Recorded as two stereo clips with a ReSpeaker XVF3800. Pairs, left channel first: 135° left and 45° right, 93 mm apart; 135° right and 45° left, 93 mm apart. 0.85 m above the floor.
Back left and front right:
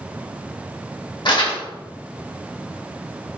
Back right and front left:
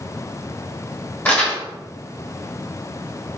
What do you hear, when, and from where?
1.2 s crumpling: 155° left, 1.5 m